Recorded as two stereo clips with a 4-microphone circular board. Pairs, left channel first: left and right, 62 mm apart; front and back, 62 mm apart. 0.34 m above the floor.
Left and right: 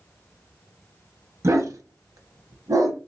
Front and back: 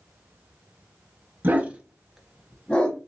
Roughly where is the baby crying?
No baby crying in this recording.